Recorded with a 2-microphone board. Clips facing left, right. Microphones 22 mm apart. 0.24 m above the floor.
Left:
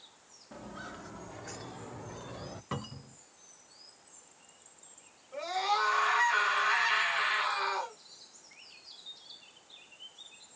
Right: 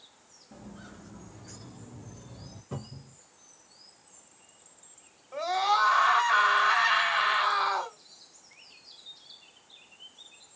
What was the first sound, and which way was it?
Footsteps, 35° left (ahead or behind).